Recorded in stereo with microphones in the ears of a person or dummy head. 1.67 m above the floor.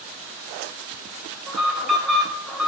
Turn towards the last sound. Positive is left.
turn(degrees=0)  # may be behind; listen again after turning